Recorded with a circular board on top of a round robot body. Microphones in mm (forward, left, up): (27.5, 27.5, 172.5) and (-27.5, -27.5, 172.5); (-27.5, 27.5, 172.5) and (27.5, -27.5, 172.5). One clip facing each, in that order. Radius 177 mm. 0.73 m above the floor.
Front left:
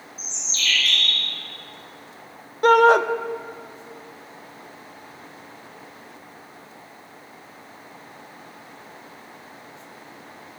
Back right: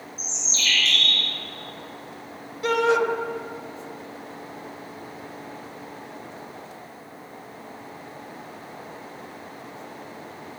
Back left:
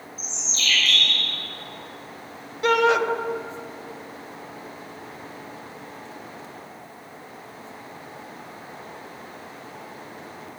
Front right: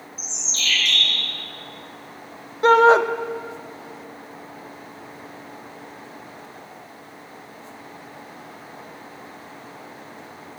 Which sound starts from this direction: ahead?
A shout, at 2.6 s.